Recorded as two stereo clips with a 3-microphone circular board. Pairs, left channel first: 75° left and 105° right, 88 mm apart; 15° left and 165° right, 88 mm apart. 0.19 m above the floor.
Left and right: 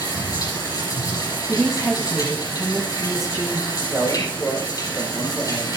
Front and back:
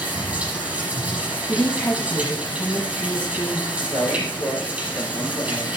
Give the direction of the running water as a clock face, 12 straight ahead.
8 o'clock.